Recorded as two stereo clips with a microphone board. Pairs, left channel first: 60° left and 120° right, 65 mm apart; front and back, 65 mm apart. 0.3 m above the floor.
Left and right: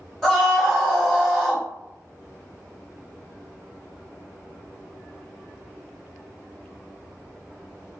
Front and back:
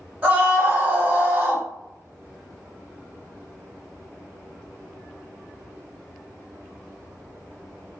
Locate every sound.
0.2 s a scream: 140° left, 1.7 m